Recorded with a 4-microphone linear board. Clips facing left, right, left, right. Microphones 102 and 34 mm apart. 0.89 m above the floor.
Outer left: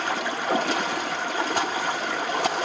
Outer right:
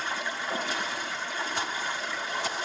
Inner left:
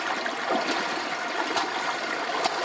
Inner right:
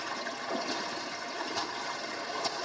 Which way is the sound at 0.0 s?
65° left (ahead or behind).